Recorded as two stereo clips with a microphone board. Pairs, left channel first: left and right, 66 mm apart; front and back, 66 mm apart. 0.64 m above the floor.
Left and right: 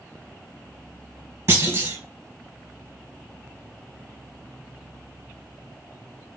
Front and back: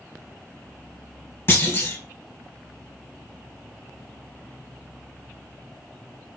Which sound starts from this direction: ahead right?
A clunk, at 1.5 s.